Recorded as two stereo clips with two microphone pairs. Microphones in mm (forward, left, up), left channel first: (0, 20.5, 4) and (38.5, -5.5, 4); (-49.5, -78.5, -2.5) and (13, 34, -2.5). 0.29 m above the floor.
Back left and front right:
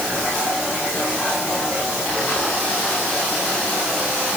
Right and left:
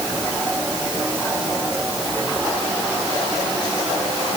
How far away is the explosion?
No explosion in this recording.